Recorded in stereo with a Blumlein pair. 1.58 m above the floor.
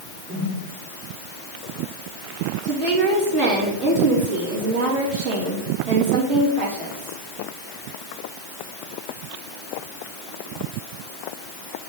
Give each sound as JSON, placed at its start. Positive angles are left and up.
{"t": 0.3, "sound": "a whoosh", "azimuth_deg": -35, "distance_m": 3.5}
{"t": 2.6, "sound": "a woman speaking", "azimuth_deg": -35, "distance_m": 3.0}